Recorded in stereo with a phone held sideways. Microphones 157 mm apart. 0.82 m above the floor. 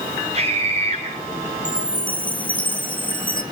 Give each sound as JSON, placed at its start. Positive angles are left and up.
{"t": 0.3, "sound": "a scream", "side_deg": -40, "distance_m": 8.0}
{"t": 1.6, "sound": "a chime", "side_deg": 30, "distance_m": 1.5}